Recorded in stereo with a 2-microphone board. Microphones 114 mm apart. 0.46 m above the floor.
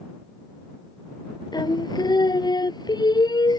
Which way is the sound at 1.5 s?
40° left (ahead or behind).